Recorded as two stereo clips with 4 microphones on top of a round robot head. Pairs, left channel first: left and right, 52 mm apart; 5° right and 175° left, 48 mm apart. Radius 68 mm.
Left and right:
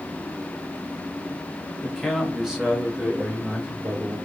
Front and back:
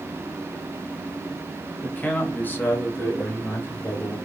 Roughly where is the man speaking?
Ahead.